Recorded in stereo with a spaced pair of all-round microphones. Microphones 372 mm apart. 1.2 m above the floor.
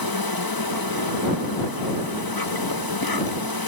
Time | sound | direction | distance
0.0 | an insect | 70° left (ahead or behind) | ?